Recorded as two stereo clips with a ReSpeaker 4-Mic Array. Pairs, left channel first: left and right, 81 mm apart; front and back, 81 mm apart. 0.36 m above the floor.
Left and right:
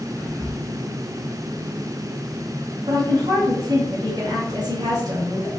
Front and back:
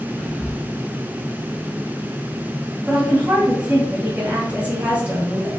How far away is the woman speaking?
About 2 m.